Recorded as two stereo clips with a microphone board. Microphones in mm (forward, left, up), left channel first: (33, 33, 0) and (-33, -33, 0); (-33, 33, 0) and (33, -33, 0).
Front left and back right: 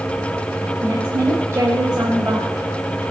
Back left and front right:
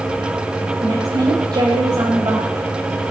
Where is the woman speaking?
75° right, 2.5 m.